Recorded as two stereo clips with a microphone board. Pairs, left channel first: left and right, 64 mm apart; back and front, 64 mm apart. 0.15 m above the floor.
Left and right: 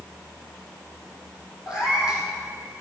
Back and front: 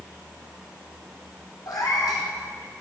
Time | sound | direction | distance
1.7 | a cat meowing | 165° right | 2.5 m